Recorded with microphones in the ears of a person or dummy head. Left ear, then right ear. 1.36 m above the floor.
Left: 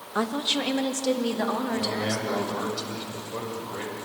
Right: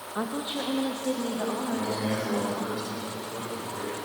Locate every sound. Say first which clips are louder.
0.1 s a woman speaking: left 6 dB; 80° left, 2 m; by 2.7 s 70° left (ahead or behind), 5 m
1.7 s a man speaking: left 2 dB; 40° left (ahead or behind), 7 m